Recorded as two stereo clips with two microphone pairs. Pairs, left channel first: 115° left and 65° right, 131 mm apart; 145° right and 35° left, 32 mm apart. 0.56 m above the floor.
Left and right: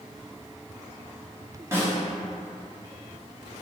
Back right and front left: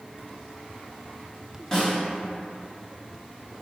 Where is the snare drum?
100° right, 1.2 m.